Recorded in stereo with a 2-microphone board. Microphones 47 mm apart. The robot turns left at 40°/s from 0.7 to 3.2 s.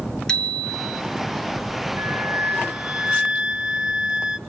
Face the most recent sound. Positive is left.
turn(degrees=-165)